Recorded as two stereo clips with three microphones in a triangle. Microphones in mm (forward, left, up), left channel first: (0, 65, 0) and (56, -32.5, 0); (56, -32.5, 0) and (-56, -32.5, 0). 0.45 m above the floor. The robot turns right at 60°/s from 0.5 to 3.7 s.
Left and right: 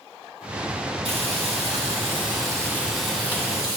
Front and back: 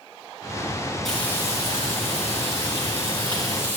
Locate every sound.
1.1 s frying: 85° right, 5.5 m; by 3.8 s 75° left, 5.5 m